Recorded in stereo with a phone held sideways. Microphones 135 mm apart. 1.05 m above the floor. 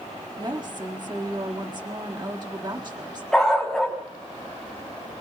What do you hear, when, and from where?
0.4 s a woman speaking: 35° right (ahead or behind), 1.9 m
3.3 s a dog barking: 5° left (ahead or behind), 3.5 m